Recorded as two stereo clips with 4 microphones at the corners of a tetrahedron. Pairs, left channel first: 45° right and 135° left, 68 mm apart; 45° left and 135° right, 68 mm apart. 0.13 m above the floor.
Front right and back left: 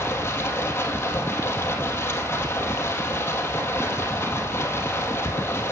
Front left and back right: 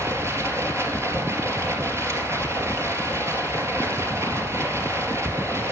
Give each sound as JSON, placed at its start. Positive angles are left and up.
{"t": 0.0, "sound": "running water", "azimuth_deg": -95, "distance_m": 3.0}